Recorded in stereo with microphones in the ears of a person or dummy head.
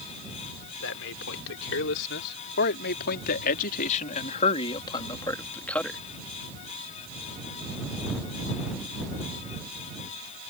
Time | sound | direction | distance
0.8 | a man speaking | 80° left | ?